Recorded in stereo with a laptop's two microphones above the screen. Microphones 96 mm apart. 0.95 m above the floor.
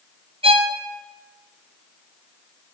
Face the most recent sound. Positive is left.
turn(degrees=-70)  # may be behind; listen again after turning